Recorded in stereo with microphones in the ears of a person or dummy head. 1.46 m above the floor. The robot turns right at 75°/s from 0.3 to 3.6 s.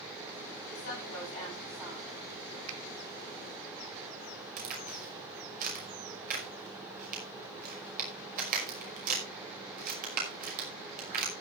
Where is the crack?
50° right (ahead or behind), 5.5 m.